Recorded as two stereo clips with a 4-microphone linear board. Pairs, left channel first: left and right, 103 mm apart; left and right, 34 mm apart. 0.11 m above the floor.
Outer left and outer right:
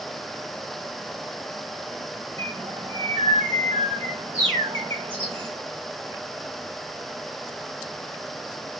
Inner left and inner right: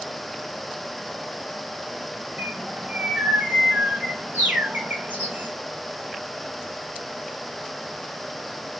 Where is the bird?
60° right (ahead or behind), 1.2 m.